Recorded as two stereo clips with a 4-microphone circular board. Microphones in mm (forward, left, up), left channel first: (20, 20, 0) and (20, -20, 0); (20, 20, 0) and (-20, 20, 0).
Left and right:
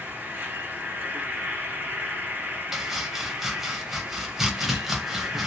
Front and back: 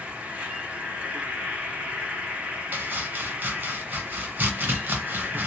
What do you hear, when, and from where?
0.0 s an insect: 125° right, 1.1 m
2.7 s chopping: 170° right, 0.9 m